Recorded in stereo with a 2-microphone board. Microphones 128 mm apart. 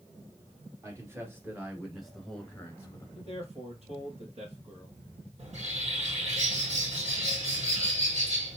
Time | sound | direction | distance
0.8 | a man speaking | 25° right (ahead or behind) | 2 m
3.1 | a man speaking | 55° right (ahead or behind) | 2.5 m
5.4 | a bird | 65° right (ahead or behind) | 3.5 m